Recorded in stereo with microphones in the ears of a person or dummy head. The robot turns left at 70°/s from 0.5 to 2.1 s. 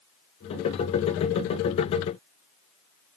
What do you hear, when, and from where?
Only background noise.